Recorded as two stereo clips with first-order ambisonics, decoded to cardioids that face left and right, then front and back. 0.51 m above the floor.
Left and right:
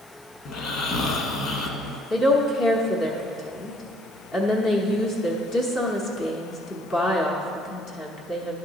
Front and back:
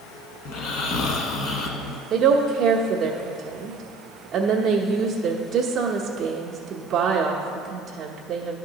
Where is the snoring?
40° left, 0.8 m.